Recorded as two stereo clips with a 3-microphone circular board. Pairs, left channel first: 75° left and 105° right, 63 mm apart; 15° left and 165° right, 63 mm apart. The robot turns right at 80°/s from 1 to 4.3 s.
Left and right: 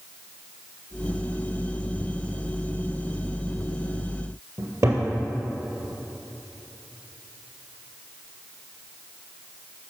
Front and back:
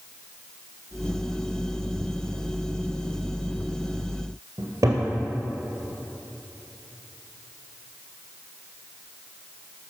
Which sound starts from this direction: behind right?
A cupboard door, at 4.6 s.